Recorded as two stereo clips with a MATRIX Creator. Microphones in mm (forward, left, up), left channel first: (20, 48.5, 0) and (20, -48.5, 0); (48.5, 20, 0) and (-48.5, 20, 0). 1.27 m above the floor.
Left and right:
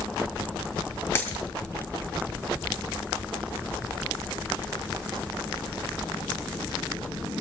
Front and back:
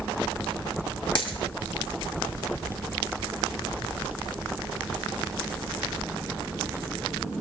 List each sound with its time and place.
1.1 s a dropped coin: 25° left, 2.5 m